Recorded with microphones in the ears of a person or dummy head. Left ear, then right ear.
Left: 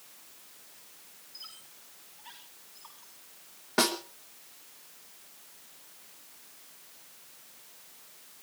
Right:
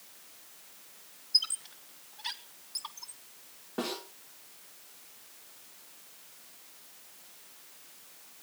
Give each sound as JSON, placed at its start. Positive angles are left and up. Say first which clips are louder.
{"t": 1.3, "sound": "a squeak", "louder": "right 19 dB", "side_deg": -60, "distance_m": 1.1}
{"t": 3.8, "sound": "a snare drum", "louder": "left 9 dB", "side_deg": 60, "distance_m": 3.0}